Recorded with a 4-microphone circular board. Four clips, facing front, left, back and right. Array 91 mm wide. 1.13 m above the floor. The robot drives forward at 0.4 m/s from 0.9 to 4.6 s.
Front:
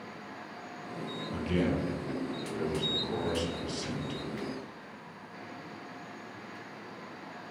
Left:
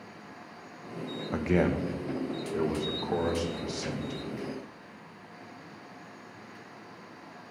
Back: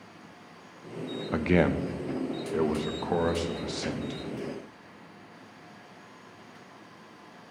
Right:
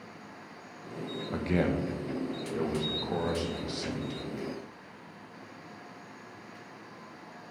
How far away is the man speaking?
About 0.8 m.